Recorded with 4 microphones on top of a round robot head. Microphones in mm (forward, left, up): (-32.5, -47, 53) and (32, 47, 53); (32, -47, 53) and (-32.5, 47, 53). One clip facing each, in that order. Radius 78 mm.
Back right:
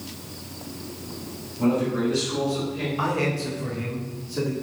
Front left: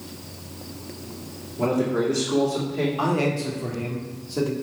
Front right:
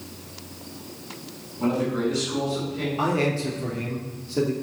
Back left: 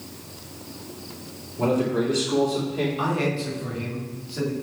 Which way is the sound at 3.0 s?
10° right.